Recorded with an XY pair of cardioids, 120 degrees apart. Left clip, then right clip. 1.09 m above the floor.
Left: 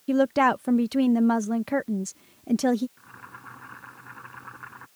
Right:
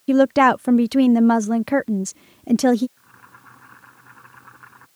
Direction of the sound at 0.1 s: 35° right.